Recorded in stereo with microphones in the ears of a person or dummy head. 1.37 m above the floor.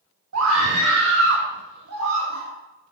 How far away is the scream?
About 1.7 m.